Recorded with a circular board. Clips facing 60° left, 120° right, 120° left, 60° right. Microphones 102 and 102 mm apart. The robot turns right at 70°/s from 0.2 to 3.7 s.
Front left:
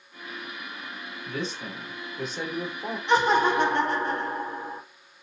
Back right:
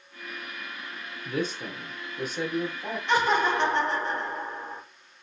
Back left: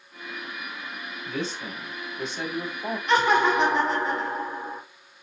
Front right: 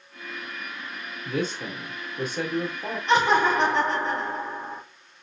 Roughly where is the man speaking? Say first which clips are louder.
Back right 3 dB, front right 4 dB; right.